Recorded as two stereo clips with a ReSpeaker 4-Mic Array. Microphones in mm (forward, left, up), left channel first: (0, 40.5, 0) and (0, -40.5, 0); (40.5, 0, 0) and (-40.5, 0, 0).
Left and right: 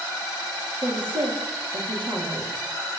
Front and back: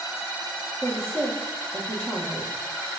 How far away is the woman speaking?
About 6 m.